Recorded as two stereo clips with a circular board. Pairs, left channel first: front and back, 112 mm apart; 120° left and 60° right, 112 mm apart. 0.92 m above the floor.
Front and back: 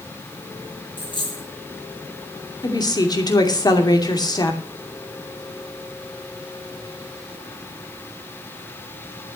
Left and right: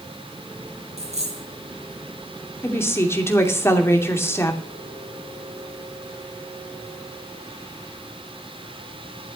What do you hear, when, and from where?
1.0 s a dropped coin: 45° right, 5 m
2.6 s a woman speaking: 50° left, 2.5 m